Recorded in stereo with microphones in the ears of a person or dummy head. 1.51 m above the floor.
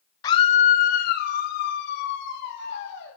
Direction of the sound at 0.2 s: 20° left (ahead or behind).